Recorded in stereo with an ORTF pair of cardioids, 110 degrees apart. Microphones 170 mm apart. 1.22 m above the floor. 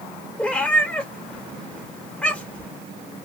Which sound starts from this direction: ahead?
A cat meowing, at 0.4 s.